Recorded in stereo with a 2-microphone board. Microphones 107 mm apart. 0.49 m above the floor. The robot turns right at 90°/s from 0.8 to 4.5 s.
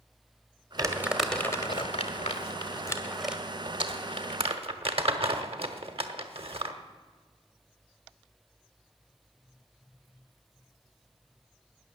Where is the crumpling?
35° right (ahead or behind), 1.3 m; by 6.8 s 60° right (ahead or behind), 1.3 m.